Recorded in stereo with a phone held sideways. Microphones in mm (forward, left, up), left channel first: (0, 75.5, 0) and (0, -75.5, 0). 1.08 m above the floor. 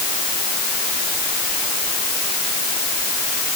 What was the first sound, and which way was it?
Only background noise.